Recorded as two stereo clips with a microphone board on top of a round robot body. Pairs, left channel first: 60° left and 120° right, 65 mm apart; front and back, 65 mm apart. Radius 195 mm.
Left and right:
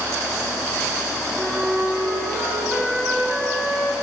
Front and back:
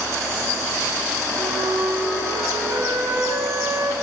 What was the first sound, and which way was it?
A flute, 160° left.